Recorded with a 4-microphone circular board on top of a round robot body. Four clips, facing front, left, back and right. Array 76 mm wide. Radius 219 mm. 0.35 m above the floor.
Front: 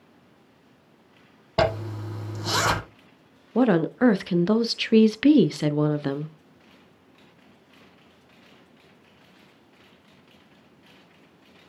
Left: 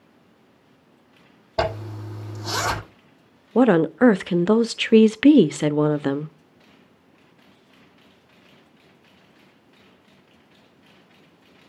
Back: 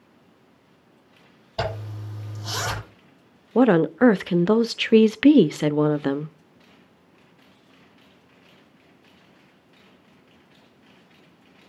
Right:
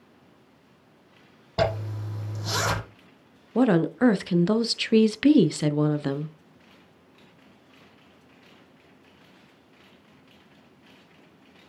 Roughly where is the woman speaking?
Behind left.